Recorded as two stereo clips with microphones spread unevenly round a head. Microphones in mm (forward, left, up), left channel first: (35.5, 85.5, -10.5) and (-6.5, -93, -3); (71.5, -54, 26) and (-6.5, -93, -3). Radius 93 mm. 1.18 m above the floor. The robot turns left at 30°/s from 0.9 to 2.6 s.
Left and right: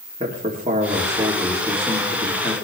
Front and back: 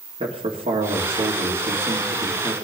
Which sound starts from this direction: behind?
A man speaking, at 0.2 s.